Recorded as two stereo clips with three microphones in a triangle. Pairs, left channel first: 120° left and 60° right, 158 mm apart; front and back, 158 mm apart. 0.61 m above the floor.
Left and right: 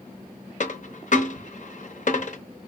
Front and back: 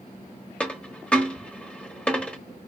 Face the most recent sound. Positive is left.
turn(degrees=80)